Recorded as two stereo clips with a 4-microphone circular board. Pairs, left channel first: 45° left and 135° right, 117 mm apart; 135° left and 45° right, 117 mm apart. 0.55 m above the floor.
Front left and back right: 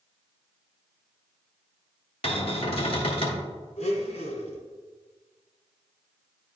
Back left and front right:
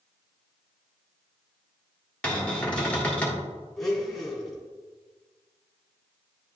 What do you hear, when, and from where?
2.2 s a cupboard door: 55° left, 1.4 m
3.8 s a blender: 45° left, 1.5 m